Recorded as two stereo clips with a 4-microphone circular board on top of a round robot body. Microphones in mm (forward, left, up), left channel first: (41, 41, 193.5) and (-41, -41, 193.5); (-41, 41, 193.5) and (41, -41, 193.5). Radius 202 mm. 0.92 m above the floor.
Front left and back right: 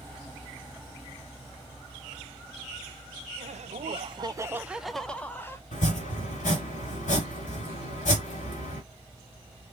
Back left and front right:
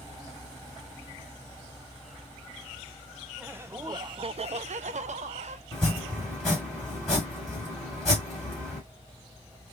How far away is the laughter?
About 0.7 m.